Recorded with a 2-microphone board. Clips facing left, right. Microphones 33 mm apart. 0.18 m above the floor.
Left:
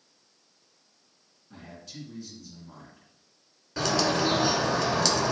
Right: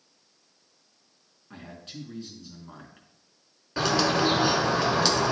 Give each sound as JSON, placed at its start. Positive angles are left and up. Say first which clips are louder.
{"t": 1.5, "sound": "a man speaking", "louder": "right 2 dB", "side_deg": -55, "distance_m": 2.5}
{"t": 3.8, "sound": "a bird", "louder": "right 2 dB", "side_deg": -25, "distance_m": 1.3}